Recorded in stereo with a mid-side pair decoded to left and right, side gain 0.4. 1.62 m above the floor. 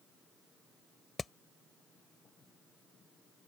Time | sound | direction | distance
1.2 | hammering | 35° left | ?